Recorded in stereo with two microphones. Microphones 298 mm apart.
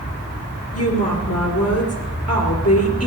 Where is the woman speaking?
55° left (ahead or behind), 2 m.